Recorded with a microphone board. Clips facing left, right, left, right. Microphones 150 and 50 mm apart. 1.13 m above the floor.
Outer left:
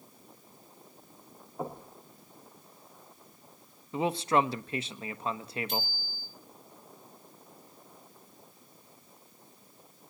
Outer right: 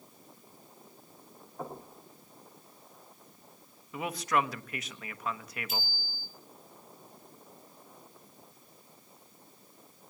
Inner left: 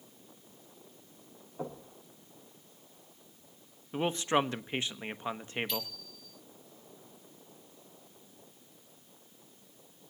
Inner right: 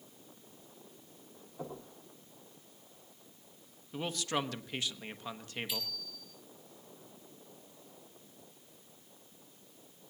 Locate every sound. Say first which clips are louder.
1.6 s knocking: outer left 3 dB, inner left 3 dB; 15° left (ahead or behind), 6.5 m
3.9 s a man speaking: outer left 4 dB, inner left 6 dB; 30° left (ahead or behind), 1.2 m
5.7 s a bicycle bell: outer left 4 dB, inner left 3 dB; 5° right (ahead or behind), 4.5 m